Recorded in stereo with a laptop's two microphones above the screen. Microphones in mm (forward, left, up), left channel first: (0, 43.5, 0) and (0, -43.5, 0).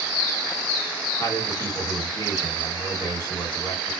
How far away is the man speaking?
About 1.7 m.